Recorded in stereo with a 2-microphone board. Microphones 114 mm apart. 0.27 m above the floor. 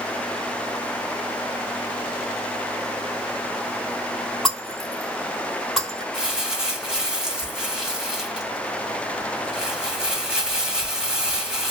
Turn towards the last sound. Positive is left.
turn(degrees=-5)  # may be behind; listen again after turning